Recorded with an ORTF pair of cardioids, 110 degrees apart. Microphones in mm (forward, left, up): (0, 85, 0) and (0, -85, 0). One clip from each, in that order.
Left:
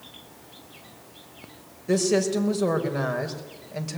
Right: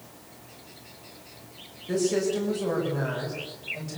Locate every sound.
1.9 s a woman speaking: 55° left, 5.5 m